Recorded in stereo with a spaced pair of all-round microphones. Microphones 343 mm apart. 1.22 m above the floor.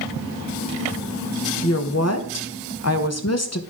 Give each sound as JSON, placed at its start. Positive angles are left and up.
{"t": 1.6, "sound": "a woman speaking", "side_deg": 45, "distance_m": 0.9}